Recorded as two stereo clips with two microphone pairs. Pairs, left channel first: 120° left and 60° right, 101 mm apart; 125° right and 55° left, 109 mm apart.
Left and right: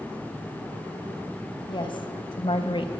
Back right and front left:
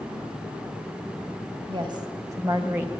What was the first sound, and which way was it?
A woman speaking, 90° left.